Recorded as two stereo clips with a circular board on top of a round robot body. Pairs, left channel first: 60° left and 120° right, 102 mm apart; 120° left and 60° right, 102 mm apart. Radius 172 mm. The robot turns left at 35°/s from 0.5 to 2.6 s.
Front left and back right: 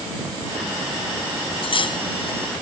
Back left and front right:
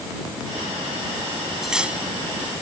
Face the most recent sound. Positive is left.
turn(degrees=-5)